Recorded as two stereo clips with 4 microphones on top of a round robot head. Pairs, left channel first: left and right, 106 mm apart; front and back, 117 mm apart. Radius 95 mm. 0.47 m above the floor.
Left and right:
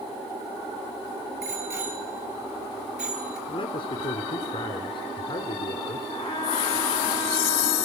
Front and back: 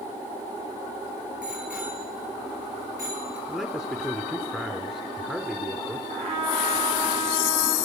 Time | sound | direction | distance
1.4 | a bicycle bell | 95° right | 7 m
3.5 | a man speaking | 100° left | 1.7 m
6.1 | a trumpet | 145° left | 8 m